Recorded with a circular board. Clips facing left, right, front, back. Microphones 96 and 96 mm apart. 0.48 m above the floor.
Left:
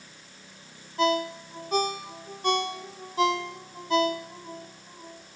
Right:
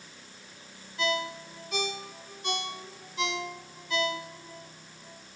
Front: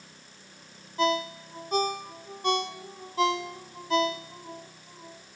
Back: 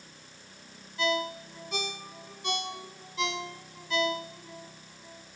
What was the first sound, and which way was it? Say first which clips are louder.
A ringtone: left 6 dB, front 3 dB; 45° left.